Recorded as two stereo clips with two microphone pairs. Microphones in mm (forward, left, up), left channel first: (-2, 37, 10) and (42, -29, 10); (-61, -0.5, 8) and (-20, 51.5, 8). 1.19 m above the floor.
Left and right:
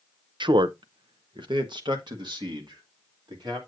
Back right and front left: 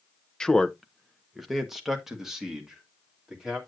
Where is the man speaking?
50° right, 0.6 m; by 3.6 s 30° right, 2.5 m.